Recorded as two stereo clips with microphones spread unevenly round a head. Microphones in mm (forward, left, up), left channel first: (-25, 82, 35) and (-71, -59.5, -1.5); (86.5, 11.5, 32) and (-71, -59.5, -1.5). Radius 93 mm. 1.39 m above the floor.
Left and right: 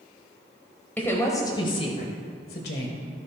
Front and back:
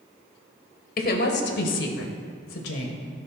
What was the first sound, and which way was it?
A woman speaking, 15° right.